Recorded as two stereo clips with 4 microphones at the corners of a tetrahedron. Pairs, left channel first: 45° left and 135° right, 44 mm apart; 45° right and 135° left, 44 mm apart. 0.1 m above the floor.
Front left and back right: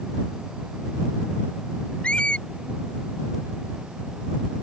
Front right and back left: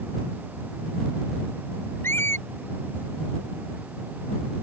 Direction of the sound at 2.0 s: 20° right.